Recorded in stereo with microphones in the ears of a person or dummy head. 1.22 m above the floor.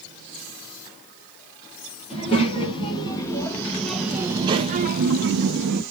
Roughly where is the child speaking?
Left.